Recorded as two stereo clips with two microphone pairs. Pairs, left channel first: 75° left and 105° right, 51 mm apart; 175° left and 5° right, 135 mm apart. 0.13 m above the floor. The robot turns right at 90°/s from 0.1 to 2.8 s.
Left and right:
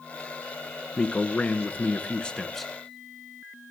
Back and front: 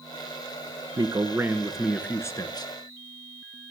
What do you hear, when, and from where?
1.0 s a man speaking: 10° left, 1.4 m; by 2.7 s 170° left, 1.4 m